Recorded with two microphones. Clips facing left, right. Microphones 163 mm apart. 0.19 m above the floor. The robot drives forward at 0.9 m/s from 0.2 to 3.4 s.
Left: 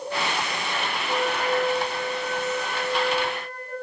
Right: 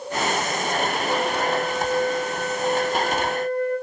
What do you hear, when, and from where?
1.1 s a flute: 70° right (ahead or behind), 2.5 m; by 3.7 s 60° right (ahead or behind), 2.5 m